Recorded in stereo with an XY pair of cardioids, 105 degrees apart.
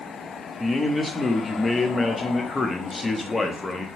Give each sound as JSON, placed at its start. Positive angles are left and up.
{"t": 0.6, "sound": "a man speaking", "azimuth_deg": 20, "distance_m": 0.7}